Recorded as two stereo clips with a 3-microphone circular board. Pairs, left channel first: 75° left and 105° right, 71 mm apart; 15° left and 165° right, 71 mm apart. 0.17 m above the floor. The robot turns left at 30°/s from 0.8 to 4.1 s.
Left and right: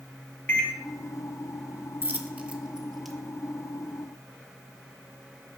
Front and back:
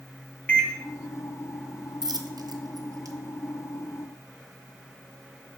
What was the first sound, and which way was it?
A microwave, 55° left.